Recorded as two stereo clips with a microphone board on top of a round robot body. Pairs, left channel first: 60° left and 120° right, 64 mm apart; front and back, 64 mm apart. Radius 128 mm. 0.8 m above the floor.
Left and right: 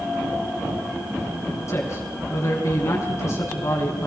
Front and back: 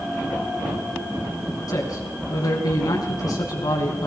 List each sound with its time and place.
1.7 s a man speaking: 20° left, 6.5 m